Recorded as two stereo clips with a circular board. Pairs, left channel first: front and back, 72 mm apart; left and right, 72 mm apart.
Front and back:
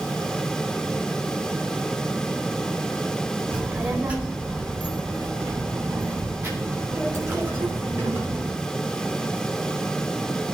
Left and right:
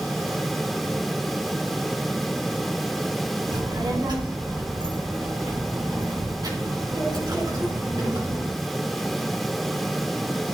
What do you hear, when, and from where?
3.5 s a child speaking: 105° right, 1.3 m; by 8.5 s 115° right, 5 m